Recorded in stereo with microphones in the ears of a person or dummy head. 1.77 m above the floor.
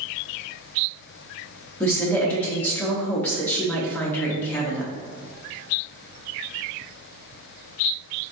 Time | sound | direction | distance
1.8 | a woman speaking | 10° left (ahead or behind) | 0.6 m